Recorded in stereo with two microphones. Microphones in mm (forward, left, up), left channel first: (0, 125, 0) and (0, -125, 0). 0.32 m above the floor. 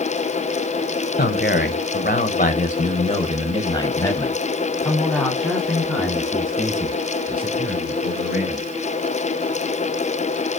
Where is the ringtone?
No ringtone in this recording.